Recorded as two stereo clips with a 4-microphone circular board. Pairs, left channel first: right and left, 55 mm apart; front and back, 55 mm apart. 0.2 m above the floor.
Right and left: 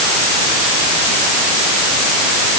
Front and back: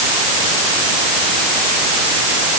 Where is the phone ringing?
No phone ringing in this recording.